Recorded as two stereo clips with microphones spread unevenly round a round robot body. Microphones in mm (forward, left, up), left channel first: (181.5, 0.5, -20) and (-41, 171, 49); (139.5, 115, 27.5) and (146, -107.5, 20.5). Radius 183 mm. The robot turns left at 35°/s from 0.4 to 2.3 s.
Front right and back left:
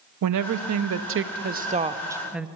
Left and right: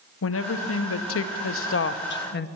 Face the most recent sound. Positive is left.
turn(degrees=50)